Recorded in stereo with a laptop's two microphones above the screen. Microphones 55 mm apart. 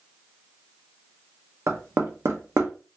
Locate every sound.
1.7 s knocking: 60° right (ahead or behind), 0.6 m